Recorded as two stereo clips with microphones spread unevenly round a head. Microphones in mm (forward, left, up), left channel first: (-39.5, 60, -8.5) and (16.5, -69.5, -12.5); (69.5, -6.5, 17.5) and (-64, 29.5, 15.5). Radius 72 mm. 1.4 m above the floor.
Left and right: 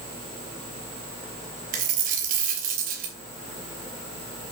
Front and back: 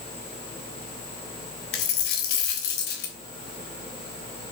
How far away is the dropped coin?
About 3.5 m.